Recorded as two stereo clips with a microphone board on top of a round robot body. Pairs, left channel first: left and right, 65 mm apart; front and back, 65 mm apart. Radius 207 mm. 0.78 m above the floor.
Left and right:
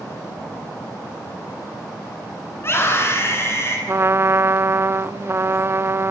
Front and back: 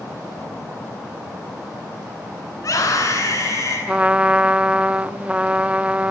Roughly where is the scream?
Ahead left.